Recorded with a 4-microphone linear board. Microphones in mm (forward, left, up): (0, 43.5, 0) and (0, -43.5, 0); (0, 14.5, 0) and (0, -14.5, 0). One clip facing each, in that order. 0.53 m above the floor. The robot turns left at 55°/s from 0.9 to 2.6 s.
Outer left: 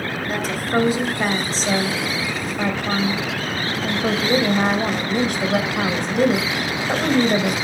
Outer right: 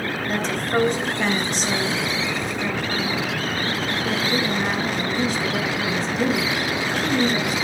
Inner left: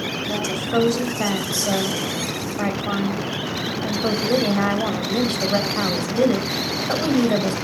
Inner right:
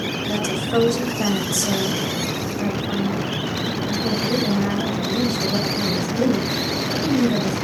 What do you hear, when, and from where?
0.3 s a woman speaking: 175° left, 3 m; by 7.5 s 80° left, 3 m